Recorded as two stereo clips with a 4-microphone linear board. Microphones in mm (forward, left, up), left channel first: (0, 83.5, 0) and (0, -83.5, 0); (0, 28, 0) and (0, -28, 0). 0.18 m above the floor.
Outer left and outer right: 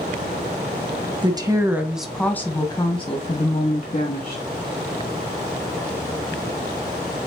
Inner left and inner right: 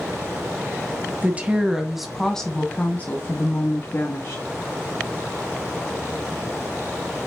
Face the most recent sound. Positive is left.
turn(degrees=55)  # may be behind; listen again after turning